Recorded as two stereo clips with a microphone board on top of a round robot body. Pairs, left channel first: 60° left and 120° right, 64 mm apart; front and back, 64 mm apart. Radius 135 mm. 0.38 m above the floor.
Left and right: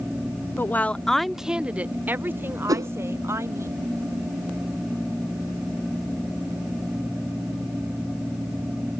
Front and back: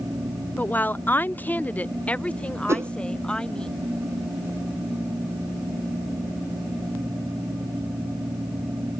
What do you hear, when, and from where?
0.6 s a woman speaking: 45° left; by 3.7 s 75° right
2.7 s a whoosh: 140° right